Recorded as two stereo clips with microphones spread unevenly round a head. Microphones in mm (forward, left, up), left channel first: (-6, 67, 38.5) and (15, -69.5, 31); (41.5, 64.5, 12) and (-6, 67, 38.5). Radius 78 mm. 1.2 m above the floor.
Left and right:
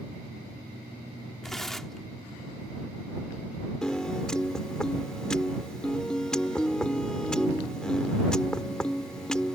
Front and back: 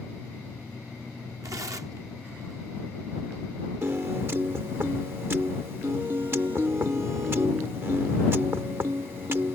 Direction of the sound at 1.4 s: 175° right.